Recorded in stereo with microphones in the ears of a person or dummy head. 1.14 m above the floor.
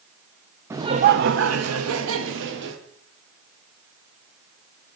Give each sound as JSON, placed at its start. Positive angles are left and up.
{"t": 0.7, "sound": "laughter", "side_deg": -15, "distance_m": 0.6}